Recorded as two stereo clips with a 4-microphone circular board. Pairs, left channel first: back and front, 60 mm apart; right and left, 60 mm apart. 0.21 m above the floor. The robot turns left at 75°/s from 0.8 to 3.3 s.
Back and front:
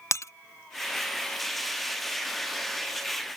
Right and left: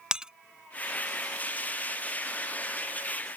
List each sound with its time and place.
0.1 s breaking glass: 165° left